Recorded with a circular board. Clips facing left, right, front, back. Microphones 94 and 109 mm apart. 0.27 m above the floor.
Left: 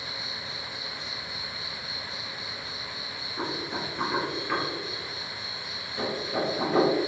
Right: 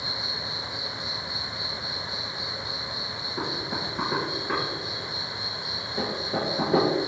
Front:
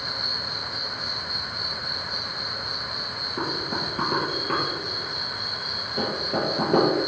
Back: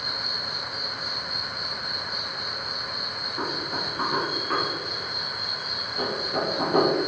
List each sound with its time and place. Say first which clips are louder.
0.0 s an insect: right 4 dB, front 1 dB; 15° right, 5.5 m
3.4 s knocking: even, front 2 dB; 25° right, 5 m